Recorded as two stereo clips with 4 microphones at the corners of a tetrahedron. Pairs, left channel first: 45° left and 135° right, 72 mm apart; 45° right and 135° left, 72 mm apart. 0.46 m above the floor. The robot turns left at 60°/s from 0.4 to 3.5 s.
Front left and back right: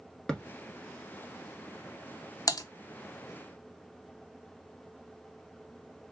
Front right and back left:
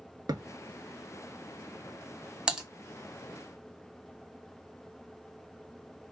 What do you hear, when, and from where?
0.3 s a thud: 120° left, 0.7 m
2.5 s typing on a keyboard: 65° left, 0.7 m; by 2.6 s 55° left, 0.7 m